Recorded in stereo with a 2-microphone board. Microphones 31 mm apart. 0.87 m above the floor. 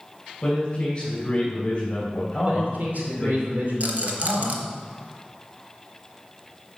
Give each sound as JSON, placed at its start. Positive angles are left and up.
{"t": 0.4, "sound": "a man speaking", "side_deg": 30, "distance_m": 4.5}
{"t": 2.5, "sound": "a man speaking", "side_deg": -60, "distance_m": 2.5}
{"t": 3.8, "sound": "a rattle", "side_deg": -60, "distance_m": 1.3}